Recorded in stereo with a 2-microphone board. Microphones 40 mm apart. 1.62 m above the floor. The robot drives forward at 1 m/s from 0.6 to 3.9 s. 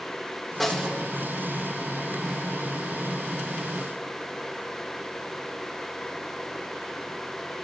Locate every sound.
0.6 s a snare drum: 5° left (ahead or behind), 2 m